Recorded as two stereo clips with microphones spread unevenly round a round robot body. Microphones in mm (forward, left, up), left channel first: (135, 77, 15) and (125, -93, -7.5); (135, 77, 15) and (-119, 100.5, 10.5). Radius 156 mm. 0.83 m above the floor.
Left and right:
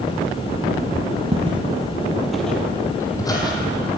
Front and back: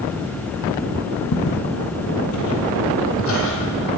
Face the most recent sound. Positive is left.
turn(degrees=25)